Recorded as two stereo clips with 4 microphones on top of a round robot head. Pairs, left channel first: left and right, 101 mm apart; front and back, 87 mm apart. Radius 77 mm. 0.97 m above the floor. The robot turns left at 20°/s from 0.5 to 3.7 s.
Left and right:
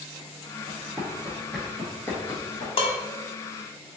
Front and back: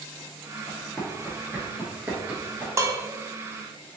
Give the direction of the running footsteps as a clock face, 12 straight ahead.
2 o'clock.